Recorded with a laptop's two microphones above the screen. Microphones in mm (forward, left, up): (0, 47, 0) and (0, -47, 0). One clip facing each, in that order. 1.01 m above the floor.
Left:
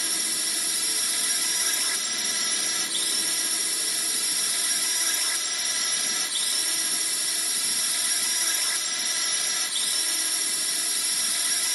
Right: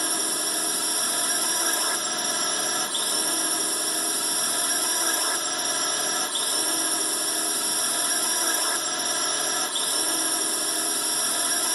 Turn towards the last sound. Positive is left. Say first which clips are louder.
# right 7 dB
turn(degrees=-45)  # may be behind; listen again after turning